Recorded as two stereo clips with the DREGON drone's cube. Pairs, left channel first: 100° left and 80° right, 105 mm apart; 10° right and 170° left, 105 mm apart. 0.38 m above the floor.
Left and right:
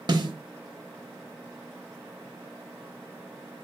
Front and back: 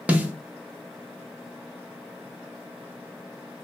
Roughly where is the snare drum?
Behind right.